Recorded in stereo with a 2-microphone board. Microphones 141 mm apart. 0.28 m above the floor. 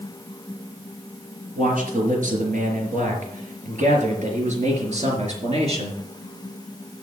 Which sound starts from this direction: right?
A man speaking, at 1.6 s.